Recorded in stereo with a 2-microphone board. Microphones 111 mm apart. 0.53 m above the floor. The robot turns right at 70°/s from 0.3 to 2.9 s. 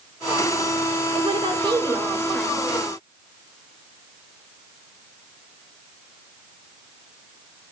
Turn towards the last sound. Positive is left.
turn(degrees=35)